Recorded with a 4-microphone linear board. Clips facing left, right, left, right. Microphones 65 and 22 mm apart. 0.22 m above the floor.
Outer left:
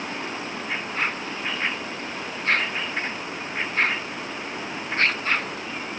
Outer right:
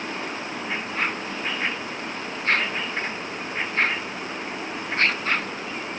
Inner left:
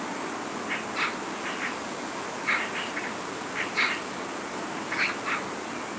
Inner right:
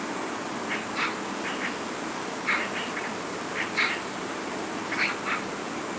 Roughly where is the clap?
No clap in this recording.